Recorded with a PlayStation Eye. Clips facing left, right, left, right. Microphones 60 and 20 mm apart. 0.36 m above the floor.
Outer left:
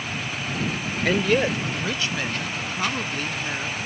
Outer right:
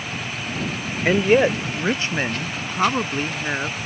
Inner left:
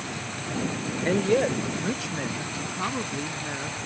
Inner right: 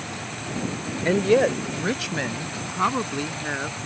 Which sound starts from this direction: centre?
A woman speaking, at 1.1 s.